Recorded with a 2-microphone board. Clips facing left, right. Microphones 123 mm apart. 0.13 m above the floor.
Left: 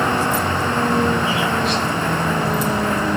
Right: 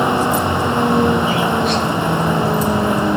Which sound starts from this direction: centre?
A vehicle, at 0.0 s.